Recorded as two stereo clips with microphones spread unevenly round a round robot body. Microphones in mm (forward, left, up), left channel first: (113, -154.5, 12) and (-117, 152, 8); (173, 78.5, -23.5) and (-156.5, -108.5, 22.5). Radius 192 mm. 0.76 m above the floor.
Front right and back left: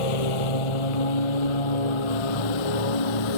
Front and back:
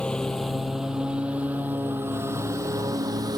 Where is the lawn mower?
60° right; by 3.4 s 70° right.